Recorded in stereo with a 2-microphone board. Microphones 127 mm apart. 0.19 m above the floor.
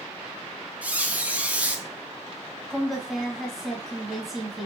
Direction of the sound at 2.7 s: Centre (ahead or behind).